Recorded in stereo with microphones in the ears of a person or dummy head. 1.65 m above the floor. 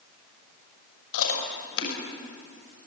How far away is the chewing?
About 6 m.